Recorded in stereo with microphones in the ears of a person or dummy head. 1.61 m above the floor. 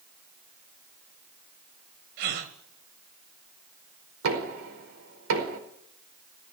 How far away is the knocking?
About 5 m.